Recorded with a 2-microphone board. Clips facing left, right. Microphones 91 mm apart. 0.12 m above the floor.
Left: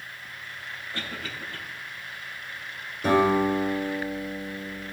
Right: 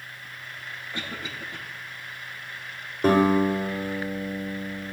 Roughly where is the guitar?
Right.